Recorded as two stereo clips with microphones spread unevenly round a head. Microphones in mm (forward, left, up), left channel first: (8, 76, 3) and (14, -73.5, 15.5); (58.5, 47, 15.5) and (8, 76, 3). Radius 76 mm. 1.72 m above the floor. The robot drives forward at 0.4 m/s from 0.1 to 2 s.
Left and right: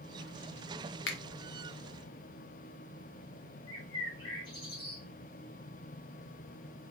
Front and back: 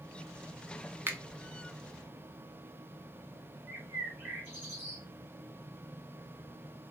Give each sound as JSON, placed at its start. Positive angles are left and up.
{"t": 1.1, "sound": "a finger snap", "azimuth_deg": 95, "distance_m": 0.5}
{"t": 3.7, "sound": "a bird", "azimuth_deg": 110, "distance_m": 1.4}